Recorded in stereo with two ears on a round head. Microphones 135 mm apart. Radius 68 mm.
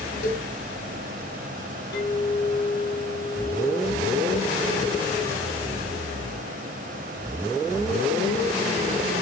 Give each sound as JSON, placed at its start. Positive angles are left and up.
{"t": 0.2, "sound": "a cowbell", "side_deg": 70, "distance_m": 2.5}
{"t": 1.9, "sound": "a clink", "side_deg": 75, "distance_m": 8.0}